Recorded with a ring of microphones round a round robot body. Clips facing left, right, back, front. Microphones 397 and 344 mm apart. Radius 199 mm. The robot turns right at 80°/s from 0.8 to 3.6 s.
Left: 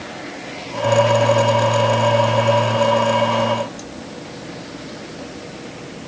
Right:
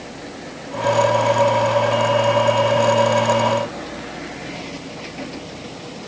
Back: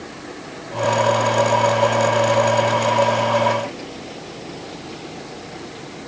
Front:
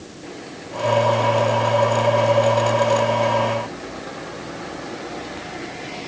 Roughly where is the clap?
I don't hear a clap.